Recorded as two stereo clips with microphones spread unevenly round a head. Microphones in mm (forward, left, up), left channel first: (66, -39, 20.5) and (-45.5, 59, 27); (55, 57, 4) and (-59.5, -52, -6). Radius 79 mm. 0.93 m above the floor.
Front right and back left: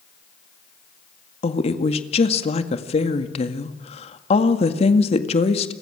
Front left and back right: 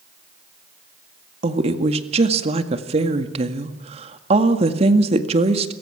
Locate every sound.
1.4 s a woman speaking: 85° right, 1.9 m